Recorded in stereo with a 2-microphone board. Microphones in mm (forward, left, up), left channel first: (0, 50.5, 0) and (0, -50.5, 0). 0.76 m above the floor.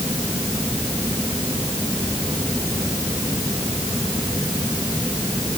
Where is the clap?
I don't hear a clap.